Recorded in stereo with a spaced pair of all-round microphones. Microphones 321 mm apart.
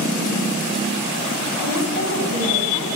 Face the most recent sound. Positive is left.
turn(degrees=-70)  # may be behind; listen again after turning